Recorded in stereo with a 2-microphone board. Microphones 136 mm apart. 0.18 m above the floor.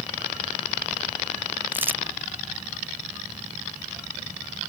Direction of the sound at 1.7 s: 15° right (ahead or behind).